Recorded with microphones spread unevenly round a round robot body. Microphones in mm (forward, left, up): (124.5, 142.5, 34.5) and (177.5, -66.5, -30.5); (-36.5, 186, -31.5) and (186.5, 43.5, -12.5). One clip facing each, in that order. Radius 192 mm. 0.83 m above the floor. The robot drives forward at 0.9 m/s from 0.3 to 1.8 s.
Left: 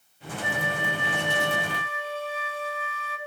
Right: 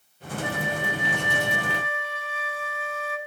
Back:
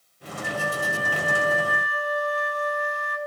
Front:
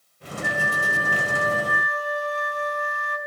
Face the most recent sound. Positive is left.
turn(degrees=-35)